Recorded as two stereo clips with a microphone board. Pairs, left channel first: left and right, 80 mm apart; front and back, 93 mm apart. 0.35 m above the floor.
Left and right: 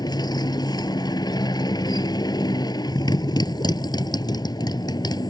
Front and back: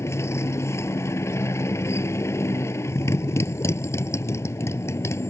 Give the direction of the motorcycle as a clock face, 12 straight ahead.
10 o'clock.